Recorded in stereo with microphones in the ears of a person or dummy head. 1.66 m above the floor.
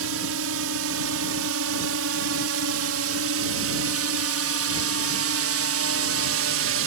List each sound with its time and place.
0.0 s a drone: 70° right (ahead or behind)